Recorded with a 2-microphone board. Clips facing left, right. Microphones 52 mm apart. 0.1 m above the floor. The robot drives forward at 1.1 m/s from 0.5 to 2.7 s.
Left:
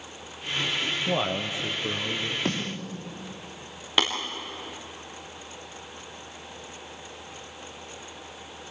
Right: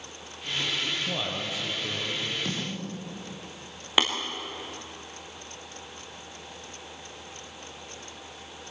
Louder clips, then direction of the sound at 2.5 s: Left 4 dB; 35° left (ahead or behind).